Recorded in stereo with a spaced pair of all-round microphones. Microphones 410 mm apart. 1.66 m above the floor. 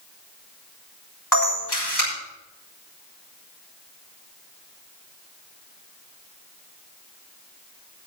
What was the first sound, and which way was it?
A camera shutter, 45° left (ahead or behind).